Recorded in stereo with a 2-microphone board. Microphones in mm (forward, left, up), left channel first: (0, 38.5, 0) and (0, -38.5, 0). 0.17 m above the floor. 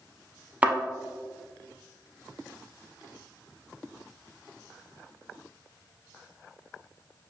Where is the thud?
20° right (ahead or behind), 0.6 m.